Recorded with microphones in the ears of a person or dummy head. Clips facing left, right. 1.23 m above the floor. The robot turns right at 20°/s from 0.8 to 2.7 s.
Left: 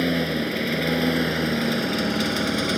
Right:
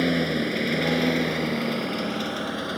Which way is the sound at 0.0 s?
5° right.